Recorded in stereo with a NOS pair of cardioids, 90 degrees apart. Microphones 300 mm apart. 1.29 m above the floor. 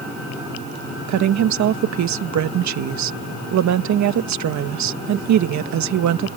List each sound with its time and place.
1.1 s a woman speaking: 65° right